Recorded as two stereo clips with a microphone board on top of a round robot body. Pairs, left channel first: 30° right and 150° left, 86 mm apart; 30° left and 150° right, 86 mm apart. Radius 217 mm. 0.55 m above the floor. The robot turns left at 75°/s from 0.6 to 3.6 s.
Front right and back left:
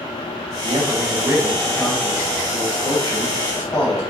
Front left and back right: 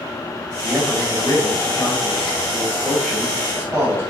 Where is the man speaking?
125° left, 3.5 m; by 4.0 s 95° right, 3.5 m.